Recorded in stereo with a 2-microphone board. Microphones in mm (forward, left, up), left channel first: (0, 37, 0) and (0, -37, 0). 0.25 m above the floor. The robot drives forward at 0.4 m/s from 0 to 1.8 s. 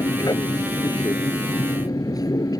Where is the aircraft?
70° left (ahead or behind); by 2.6 s 65° left (ahead or behind).